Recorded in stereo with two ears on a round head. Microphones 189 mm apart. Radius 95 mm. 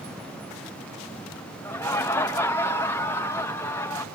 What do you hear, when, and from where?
1.6 s laughter: 10° left (ahead or behind), 0.8 m